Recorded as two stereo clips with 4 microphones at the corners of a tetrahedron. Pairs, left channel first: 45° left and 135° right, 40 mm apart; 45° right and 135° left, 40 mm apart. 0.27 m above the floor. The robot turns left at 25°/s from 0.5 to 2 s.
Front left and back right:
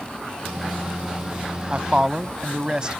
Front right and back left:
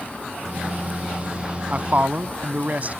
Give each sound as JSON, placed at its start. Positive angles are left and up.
{"t": 1.7, "sound": "a man speaking", "azimuth_deg": 175}